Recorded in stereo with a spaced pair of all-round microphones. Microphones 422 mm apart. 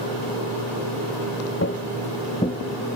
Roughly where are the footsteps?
Left.